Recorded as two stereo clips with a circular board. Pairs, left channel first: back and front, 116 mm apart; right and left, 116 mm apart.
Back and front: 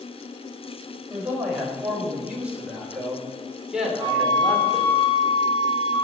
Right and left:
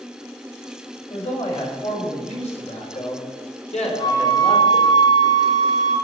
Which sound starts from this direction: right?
A man speaking, at 1.1 s.